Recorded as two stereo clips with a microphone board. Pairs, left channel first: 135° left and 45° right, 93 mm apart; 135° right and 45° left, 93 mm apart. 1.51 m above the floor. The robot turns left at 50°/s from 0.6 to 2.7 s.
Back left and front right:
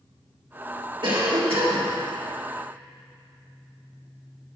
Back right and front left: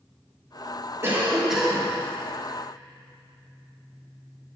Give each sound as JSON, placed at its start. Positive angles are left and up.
{"t": 1.0, "sound": "a cough", "azimuth_deg": -15, "distance_m": 1.7}